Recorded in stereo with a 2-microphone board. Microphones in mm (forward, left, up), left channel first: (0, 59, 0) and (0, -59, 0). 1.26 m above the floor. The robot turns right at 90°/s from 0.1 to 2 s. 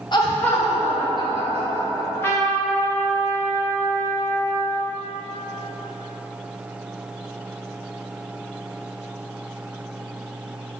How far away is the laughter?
About 0.9 m.